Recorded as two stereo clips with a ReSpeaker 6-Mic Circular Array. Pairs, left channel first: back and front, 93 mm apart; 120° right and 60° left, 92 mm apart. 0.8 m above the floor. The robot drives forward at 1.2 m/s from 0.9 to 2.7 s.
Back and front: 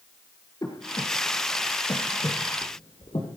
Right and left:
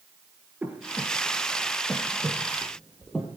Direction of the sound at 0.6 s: 135° left.